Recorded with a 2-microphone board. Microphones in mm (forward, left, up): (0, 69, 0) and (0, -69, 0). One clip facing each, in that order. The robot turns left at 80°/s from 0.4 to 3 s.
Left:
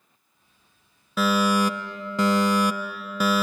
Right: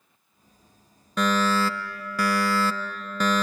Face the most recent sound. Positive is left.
turn(degrees=10)  # may be behind; listen again after turning